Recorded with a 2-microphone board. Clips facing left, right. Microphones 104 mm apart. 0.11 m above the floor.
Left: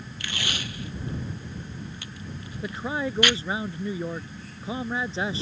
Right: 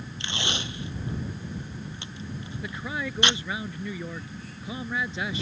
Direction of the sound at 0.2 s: 25° right (ahead or behind).